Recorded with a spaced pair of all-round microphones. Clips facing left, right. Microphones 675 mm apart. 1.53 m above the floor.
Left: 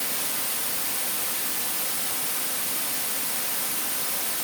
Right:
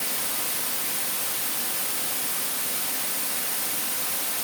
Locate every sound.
Only background noise.